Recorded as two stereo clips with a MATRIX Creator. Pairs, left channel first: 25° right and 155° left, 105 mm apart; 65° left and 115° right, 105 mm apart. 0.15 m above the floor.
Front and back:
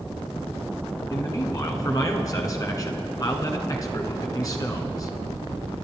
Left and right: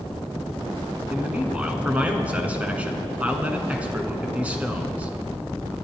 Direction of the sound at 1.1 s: 45° right.